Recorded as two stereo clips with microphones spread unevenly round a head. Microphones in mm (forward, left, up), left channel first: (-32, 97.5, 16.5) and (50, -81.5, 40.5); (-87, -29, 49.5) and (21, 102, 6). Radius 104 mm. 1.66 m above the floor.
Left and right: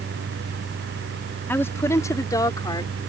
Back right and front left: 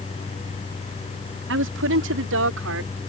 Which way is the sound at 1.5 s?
35° left.